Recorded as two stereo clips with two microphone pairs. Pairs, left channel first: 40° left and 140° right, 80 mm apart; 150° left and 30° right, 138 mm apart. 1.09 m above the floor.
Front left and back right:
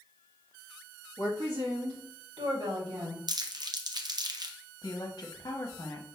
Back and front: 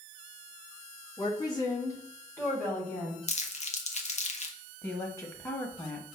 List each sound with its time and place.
1.2 s a woman speaking: 155° right, 1.9 m; by 3.2 s 125° right, 2.5 m
3.3 s crumpling: 175° right, 0.7 m
4.8 s a woman speaking: 80° left, 1.1 m